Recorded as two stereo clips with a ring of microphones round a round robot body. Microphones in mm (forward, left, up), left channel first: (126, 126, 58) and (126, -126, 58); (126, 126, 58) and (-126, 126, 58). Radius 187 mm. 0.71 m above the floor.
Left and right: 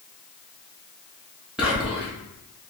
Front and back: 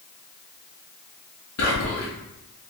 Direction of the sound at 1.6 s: 5° right.